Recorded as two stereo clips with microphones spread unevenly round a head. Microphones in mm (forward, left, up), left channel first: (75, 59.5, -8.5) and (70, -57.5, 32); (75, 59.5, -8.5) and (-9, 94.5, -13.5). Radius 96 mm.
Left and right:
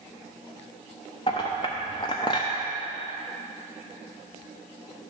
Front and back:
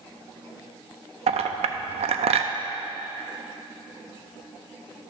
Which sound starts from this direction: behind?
A clink, at 1.3 s.